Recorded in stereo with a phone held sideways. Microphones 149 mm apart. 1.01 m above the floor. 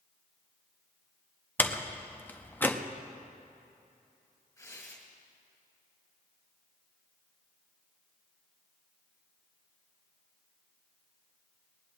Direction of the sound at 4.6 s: 20° left (ahead or behind).